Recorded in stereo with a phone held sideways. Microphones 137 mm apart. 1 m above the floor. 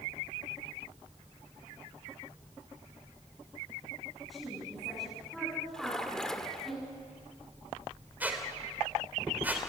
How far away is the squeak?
About 3 m.